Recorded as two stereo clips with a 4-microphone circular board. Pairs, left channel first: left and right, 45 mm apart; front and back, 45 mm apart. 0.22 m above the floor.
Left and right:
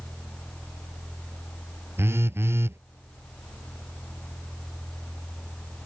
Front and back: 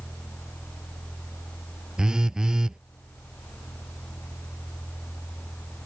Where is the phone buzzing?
105° right.